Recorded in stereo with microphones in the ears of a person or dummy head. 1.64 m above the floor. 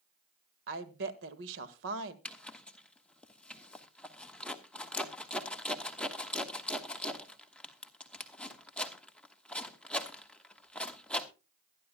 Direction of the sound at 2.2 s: 5° left (ahead or behind).